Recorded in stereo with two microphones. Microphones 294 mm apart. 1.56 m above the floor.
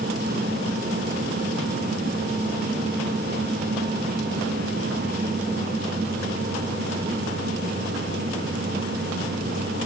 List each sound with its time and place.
Only background noise.